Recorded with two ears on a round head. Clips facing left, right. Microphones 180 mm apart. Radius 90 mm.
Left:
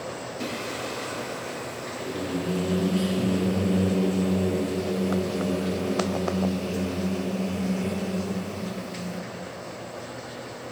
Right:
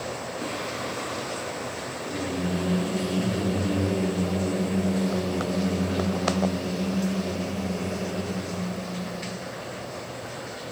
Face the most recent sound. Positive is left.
turn(degrees=40)  # may be behind; listen again after turning